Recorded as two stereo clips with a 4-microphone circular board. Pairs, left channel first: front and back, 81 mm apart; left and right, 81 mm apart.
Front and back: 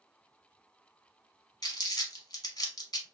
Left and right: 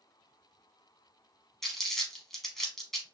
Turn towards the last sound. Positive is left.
turn(degrees=5)